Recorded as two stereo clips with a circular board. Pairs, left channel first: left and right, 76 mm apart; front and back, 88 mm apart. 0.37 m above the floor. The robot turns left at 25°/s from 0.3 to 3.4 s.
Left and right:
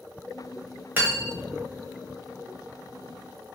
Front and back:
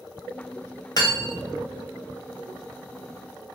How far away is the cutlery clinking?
About 1.0 m.